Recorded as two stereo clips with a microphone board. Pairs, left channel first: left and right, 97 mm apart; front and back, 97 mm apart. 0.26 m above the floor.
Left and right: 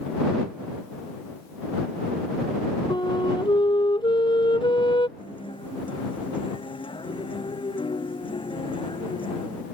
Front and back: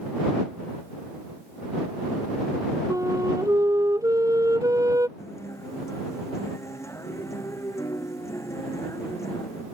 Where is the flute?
125° left.